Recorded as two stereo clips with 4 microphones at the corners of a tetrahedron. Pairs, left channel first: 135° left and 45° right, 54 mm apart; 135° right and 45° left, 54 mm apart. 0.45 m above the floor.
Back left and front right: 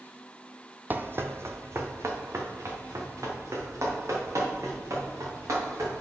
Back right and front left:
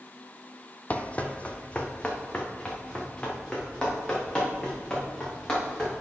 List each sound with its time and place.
0.9 s running footsteps: 85° right, 0.6 m; by 6.0 s 60° right, 4.5 m